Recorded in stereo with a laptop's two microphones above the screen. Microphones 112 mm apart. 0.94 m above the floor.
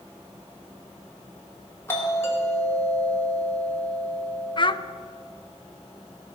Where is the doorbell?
25° left (ahead or behind), 2.5 m.